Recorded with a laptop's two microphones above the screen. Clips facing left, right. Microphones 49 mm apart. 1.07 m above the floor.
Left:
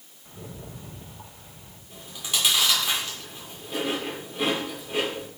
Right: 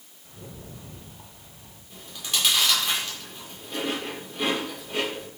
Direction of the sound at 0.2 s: 10° left (ahead or behind).